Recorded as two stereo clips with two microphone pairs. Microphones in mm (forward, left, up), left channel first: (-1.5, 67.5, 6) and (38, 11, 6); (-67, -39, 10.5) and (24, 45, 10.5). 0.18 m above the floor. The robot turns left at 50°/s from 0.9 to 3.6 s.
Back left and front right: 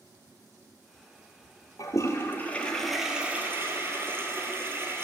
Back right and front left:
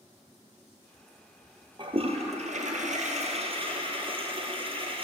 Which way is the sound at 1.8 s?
90° left.